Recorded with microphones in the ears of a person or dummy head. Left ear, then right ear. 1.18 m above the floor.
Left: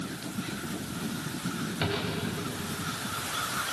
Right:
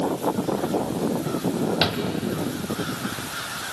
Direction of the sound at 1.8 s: 50° right (ahead or behind).